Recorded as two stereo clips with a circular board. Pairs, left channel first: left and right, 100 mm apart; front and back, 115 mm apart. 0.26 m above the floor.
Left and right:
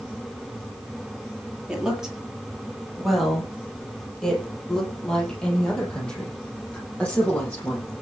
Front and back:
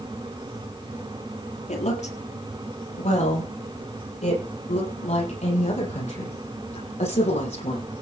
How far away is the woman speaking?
About 5.5 m.